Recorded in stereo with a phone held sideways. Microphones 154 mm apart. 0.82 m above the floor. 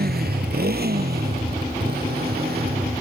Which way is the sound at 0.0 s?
85° right.